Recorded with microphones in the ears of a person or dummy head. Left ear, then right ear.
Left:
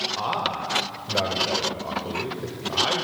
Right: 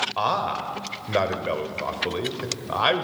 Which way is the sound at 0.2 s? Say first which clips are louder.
Right 2 dB; 65° right (ahead or behind).